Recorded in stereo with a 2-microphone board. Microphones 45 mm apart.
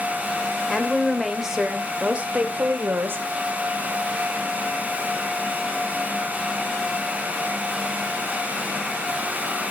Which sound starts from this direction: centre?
A woman speaking, at 0.7 s.